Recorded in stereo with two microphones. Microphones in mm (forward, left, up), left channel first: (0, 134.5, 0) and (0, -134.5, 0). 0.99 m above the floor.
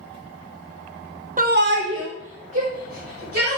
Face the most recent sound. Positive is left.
turn(degrees=-55)  # may be behind; listen again after turning